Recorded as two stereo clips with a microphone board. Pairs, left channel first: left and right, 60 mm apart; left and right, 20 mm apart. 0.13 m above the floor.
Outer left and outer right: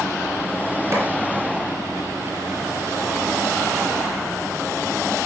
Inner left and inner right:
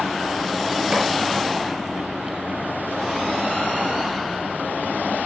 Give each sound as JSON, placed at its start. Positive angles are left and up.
{"t": 0.9, "sound": "a clap", "side_deg": -55, "distance_m": 1.9}